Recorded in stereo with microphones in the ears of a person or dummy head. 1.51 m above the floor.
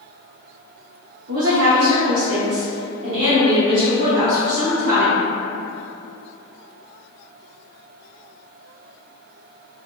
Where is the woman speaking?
70° right (ahead or behind), 0.8 m; by 5.3 s 15° right (ahead or behind), 1.9 m.